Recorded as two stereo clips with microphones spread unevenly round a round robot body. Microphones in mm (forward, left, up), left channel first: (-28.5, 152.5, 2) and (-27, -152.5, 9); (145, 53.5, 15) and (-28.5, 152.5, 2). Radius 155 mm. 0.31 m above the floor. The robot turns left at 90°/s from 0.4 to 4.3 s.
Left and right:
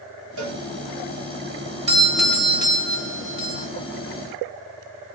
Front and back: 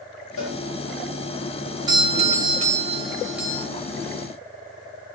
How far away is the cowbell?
About 4 m.